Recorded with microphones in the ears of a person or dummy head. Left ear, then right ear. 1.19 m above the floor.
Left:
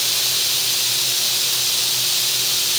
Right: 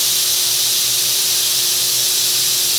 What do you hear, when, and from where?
Only background noise.